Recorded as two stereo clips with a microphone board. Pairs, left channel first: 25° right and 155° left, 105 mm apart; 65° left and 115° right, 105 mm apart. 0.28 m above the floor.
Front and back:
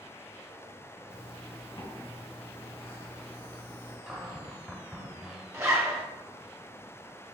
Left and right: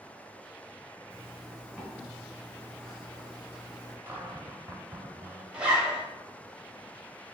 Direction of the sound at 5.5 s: Straight behind.